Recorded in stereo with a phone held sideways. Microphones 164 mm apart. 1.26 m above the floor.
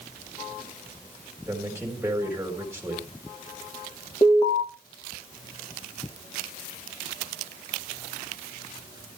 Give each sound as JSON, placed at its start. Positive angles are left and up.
{"t": 1.5, "sound": "a man speaking", "side_deg": -10, "distance_m": 3.5}
{"t": 4.2, "sound": "an alarm", "side_deg": 30, "distance_m": 3.5}